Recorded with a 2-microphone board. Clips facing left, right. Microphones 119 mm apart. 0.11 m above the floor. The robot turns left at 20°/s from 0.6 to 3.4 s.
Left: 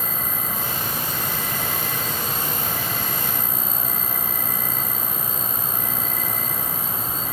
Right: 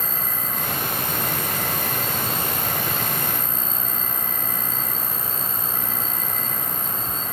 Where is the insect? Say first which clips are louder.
Left 1 dB; 25° left, 1.3 m; by 7.3 s 30° right, 1.3 m.